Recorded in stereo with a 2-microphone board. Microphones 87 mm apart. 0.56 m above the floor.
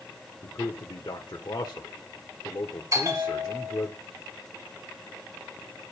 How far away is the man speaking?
About 1.6 m.